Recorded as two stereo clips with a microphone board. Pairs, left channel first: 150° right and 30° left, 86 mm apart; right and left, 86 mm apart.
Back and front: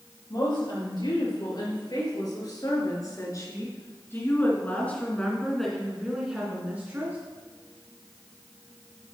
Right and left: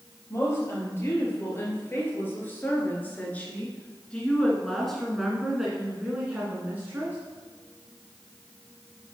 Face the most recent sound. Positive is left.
turn(degrees=60)